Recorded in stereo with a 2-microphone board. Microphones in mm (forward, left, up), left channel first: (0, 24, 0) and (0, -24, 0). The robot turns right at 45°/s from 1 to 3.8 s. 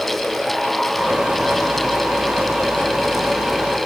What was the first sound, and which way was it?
Only background noise.